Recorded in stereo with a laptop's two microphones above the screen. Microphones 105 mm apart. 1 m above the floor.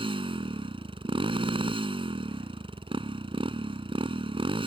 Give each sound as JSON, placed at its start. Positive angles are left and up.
{"t": 0.0, "sound": "a motorcycle", "side_deg": -50}